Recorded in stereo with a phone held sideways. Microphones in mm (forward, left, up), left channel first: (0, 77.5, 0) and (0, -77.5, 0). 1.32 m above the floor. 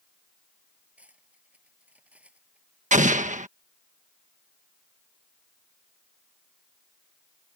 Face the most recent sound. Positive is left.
turn(degrees=-55)  # may be behind; listen again after turning